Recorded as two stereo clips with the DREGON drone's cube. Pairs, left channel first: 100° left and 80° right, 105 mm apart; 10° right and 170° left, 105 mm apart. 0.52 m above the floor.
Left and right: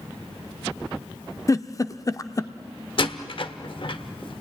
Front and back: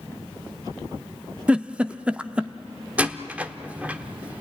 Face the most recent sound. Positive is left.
turn(degrees=95)